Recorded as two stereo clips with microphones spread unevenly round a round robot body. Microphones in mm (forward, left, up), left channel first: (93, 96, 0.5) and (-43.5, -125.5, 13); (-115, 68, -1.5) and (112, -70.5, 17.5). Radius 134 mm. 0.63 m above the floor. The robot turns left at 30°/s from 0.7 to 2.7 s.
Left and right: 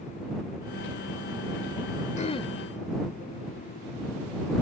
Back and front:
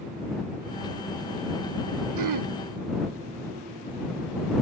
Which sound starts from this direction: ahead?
Throat clearing, at 2.2 s.